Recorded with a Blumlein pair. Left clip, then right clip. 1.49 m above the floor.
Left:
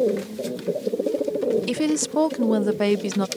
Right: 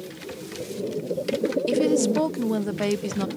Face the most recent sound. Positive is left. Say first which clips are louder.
# right 3 dB
turn(degrees=10)